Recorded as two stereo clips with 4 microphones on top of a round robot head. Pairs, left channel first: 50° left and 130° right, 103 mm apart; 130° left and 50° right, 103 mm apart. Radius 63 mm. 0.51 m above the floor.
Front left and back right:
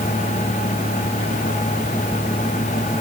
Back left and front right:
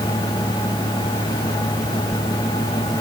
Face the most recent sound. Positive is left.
No sound to turn to.